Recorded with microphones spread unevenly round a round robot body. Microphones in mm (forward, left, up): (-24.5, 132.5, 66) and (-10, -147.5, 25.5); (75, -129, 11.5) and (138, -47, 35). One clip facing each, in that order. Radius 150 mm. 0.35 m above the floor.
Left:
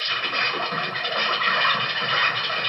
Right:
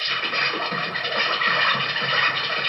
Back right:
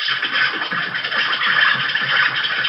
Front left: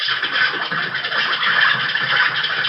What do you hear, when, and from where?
0.0 s an insect: 30° right, 0.8 m